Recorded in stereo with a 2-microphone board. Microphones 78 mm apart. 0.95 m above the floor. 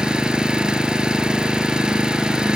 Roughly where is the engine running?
Centre.